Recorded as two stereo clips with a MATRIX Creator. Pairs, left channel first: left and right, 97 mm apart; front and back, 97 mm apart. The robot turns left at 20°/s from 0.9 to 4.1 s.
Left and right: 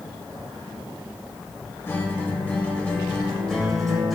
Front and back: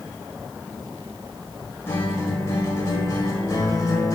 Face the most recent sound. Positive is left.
turn(degrees=0)